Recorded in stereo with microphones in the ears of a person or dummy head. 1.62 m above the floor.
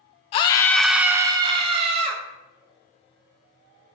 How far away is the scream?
About 0.5 m.